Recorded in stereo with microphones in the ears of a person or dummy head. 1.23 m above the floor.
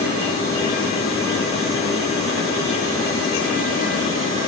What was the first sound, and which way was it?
Only background noise.